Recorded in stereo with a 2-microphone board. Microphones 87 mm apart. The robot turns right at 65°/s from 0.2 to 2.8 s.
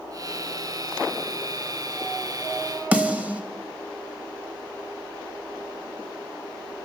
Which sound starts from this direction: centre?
A snare drum, at 2.9 s.